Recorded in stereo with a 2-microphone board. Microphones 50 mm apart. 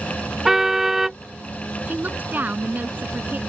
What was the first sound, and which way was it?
A car horn, 5° right (ahead or behind).